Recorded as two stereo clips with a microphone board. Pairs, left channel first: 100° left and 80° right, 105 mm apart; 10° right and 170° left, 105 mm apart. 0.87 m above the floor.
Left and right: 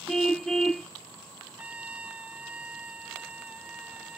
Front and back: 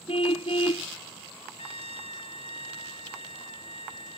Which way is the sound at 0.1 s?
15° left.